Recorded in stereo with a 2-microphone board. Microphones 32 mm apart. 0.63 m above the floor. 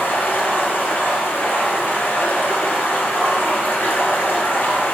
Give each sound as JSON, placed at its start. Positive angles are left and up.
{"t": 0.0, "sound": "running water", "side_deg": 85, "distance_m": 3.0}